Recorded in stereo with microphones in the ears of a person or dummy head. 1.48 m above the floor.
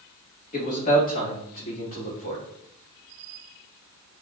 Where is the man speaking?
45° left (ahead or behind), 1.8 m.